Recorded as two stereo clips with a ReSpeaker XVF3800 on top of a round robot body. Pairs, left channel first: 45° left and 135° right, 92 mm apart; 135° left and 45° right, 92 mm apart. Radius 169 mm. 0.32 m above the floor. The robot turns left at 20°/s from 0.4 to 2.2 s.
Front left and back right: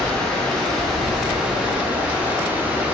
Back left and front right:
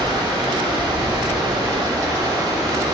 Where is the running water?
35° right, 0.9 m; by 2.9 s 70° right, 0.9 m.